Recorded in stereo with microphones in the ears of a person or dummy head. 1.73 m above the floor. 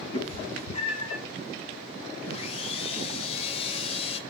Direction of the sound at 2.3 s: 40° left (ahead or behind).